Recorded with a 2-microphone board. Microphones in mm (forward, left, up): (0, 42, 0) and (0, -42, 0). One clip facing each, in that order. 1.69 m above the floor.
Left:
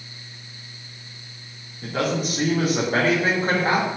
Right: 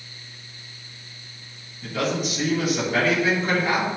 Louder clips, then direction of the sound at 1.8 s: Left 1 dB; 45° left (ahead or behind).